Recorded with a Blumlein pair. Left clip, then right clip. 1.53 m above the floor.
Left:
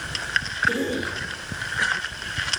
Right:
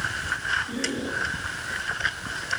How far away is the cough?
About 3 m.